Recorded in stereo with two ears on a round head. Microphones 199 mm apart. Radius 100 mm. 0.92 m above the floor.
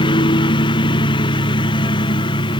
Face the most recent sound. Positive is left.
turn(degrees=20)  # may be behind; listen again after turning